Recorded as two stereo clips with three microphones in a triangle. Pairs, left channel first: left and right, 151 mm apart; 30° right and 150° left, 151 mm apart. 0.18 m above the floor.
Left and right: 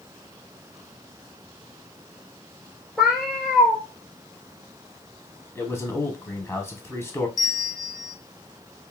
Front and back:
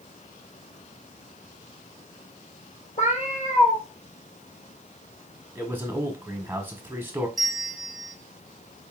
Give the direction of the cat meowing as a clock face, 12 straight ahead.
12 o'clock.